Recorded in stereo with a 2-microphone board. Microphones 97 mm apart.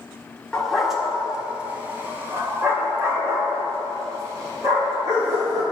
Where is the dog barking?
10° left (ahead or behind), 1.4 m; by 5.6 s 40° right (ahead or behind), 4.5 m.